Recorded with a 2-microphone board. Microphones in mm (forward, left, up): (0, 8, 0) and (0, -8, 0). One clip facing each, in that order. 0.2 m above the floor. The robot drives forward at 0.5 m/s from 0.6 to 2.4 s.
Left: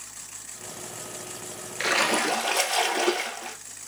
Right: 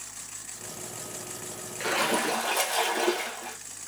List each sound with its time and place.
1.8 s a splash: 40° left (ahead or behind), 0.5 m; by 3.6 s 25° left (ahead or behind), 0.8 m